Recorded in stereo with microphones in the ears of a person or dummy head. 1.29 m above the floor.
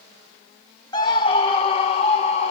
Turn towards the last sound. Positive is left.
turn(degrees=40)  # may be behind; listen again after turning